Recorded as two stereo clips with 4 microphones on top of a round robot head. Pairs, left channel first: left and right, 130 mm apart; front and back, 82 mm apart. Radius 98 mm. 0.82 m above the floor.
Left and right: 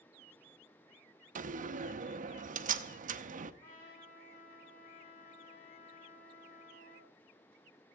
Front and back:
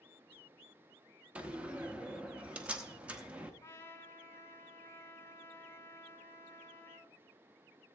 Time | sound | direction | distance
1.4 | a door slam | 105° right | 0.8 m
3.6 | a trumpet | 55° left | 2.5 m